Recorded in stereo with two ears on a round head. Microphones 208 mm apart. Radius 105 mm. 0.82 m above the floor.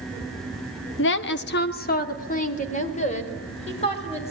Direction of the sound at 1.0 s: 50° left (ahead or behind).